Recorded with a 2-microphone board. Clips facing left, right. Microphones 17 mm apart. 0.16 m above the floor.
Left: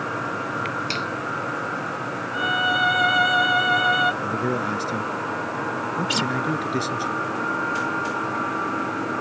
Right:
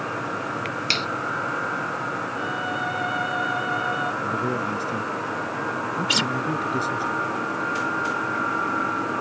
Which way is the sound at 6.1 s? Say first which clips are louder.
Right 3 dB; 25° right (ahead or behind).